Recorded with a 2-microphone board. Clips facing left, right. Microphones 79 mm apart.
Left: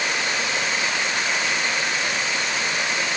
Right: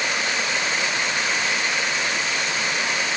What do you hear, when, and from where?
Only background noise.